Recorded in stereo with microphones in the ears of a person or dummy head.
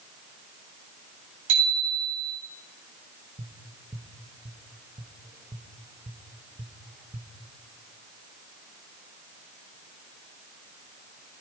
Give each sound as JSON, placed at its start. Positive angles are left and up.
{"t": 1.5, "sound": "a bicycle bell", "side_deg": -85, "distance_m": 7.0}
{"t": 3.4, "sound": "tapping", "side_deg": -15, "distance_m": 1.1}